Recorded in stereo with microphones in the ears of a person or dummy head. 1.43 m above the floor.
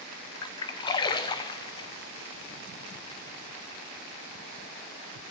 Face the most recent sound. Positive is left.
turn(degrees=25)  # may be behind; listen again after turning